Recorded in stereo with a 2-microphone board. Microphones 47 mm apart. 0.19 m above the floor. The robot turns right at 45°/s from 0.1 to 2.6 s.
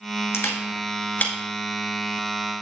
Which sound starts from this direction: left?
A camera shutter, at 0.3 s.